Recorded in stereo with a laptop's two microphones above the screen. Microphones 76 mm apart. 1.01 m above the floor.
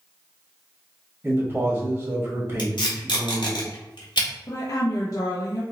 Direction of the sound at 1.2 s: 25° right (ahead or behind).